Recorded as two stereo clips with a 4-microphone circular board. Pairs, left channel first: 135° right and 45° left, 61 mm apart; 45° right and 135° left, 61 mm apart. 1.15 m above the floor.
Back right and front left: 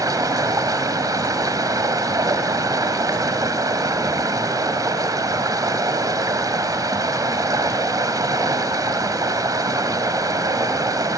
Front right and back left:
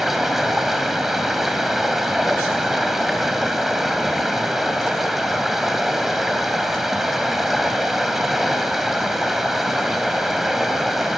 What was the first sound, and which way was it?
Running water, 50° left.